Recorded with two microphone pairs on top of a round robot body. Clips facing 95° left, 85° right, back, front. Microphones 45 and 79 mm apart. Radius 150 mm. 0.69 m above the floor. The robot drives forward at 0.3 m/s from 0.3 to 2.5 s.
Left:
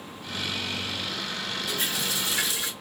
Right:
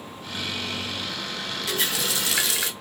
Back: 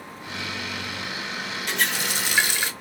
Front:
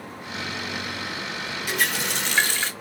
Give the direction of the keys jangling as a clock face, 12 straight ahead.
No keys jangling in this recording.